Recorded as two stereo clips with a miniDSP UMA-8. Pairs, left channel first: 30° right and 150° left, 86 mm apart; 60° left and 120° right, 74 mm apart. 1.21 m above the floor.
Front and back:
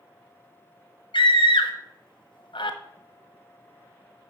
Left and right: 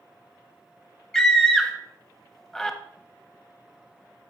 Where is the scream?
25° right, 1.1 m.